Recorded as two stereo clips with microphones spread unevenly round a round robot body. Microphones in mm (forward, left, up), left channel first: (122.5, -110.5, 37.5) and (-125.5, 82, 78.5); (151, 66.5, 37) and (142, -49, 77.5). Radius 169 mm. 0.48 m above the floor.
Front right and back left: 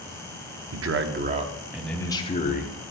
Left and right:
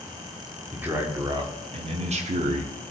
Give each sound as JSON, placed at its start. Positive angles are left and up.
{"t": 0.7, "sound": "a man speaking", "azimuth_deg": 170, "distance_m": 0.9}